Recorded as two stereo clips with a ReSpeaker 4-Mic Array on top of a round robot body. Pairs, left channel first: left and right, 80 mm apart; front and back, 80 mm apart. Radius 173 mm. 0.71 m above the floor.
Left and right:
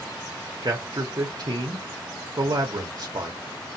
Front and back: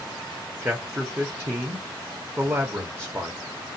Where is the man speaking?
120° right, 0.9 m.